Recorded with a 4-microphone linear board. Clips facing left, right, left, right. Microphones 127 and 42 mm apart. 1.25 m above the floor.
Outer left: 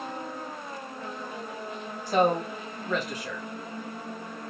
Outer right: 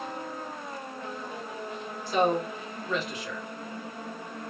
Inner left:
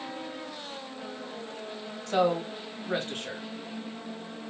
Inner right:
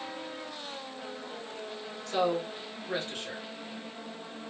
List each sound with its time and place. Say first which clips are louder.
2.1 s a man speaking: outer left 2 dB, inner left 3 dB; 45° left (ahead or behind), 1.9 m